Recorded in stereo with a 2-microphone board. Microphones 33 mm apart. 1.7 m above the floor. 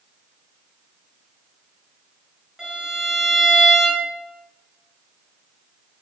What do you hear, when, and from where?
2.6 s a violin: 15° right (ahead or behind), 5.5 m